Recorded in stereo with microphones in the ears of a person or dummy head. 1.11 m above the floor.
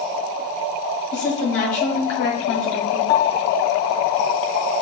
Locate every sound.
1.1 s a woman speaking: 20° left (ahead or behind), 1.2 m
3.1 s a piano: 25° left (ahead or behind), 0.6 m